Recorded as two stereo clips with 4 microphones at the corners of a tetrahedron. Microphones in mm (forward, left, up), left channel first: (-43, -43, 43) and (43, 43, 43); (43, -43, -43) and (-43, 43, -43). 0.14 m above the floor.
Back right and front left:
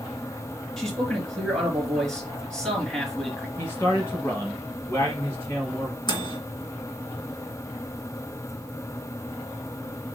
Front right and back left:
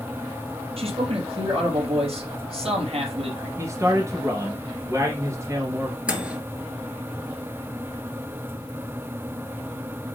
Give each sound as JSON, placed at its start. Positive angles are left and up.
{"t": 0.8, "sound": "a man speaking", "azimuth_deg": 140, "distance_m": 3.5}
{"t": 3.6, "sound": "a man speaking", "azimuth_deg": 175, "distance_m": 1.7}
{"t": 6.1, "sound": "a microwave", "azimuth_deg": -150, "distance_m": 1.7}